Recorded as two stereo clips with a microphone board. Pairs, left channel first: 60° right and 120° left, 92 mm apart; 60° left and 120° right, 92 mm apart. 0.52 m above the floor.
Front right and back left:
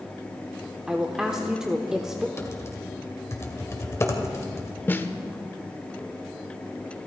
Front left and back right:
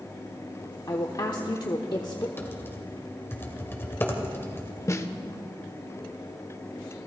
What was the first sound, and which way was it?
A woman speaking, 40° left.